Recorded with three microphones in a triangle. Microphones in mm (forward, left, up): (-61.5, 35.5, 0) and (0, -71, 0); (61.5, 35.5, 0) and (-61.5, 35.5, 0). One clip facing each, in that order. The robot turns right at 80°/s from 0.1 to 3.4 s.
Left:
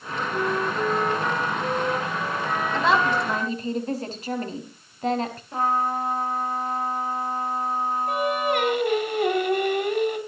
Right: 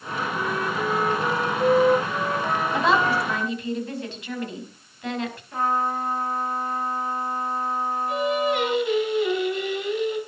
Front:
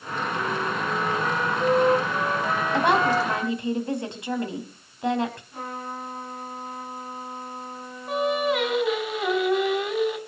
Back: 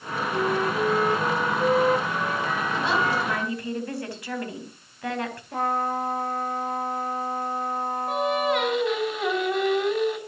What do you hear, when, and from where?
0.3 s a flute: 160° left, 1.9 m; by 3.6 s 45° left, 1.9 m
2.7 s a woman speaking: 15° left, 4 m; by 5.4 s 70° left, 4 m
5.5 s a trumpet: 175° right, 9.5 m
8.1 s singing: 90° left, 5 m